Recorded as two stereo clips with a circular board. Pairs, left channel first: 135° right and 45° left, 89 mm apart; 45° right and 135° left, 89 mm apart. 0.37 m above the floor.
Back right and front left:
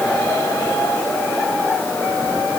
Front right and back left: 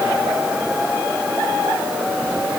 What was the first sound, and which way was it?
Only background noise.